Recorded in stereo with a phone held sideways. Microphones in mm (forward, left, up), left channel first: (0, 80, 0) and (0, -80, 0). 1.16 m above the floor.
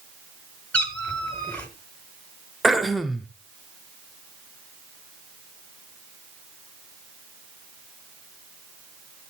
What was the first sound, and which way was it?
A cat meowing, 10° left (ahead or behind).